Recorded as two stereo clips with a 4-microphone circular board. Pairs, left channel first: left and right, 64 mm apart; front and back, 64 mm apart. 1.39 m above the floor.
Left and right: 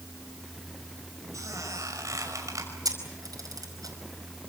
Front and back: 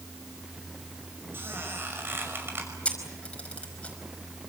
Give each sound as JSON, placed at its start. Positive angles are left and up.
{"t": 1.3, "sound": "a squeak", "azimuth_deg": -125, "distance_m": 6.0}
{"t": 2.9, "sound": "a camera shutter", "azimuth_deg": -70, "distance_m": 5.0}